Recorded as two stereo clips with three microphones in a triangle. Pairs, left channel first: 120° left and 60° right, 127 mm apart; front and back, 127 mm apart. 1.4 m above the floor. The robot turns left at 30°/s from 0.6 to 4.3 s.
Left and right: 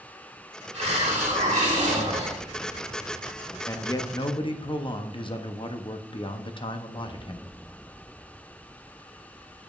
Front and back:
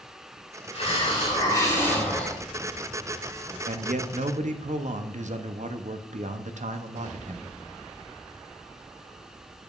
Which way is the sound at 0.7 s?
35° right.